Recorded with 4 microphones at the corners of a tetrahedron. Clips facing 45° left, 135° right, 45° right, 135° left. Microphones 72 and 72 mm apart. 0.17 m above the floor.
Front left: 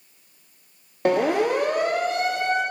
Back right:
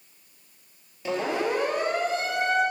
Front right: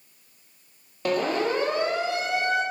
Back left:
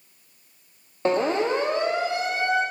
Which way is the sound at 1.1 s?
75° left.